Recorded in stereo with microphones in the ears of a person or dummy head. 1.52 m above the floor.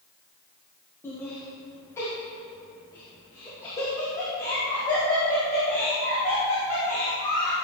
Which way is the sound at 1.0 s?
10° left (ahead or behind).